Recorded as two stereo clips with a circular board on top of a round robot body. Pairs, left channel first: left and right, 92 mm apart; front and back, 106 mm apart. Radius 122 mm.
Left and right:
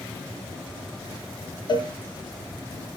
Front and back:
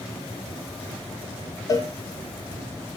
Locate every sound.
1.7 s a cowbell: 55° left, 3 m